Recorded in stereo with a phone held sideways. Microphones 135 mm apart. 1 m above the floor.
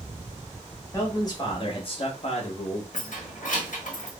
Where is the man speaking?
25° left (ahead or behind), 1.4 m; by 2.8 s 60° left (ahead or behind), 1.1 m.